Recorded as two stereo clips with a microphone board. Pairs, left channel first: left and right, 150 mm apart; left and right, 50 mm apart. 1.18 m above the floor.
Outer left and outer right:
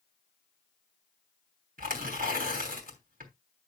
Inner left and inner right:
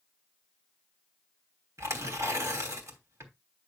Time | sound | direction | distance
1.8 | tearing paper | 70° right (ahead or behind) | 3 m